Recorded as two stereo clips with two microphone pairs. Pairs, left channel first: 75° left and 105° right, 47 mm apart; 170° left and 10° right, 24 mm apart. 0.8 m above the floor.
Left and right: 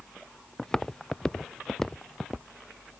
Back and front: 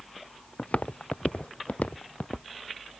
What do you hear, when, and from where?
0.6 s footsteps: 155° left